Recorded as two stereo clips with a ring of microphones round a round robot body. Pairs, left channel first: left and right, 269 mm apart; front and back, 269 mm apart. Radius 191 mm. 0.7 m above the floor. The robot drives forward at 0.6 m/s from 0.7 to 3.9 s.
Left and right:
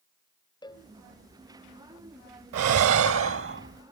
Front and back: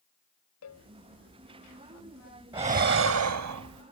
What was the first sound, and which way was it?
A cowbell, 15° left.